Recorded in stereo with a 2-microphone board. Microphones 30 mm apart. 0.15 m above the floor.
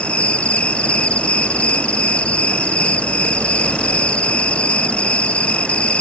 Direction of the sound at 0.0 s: 40° left (ahead or behind).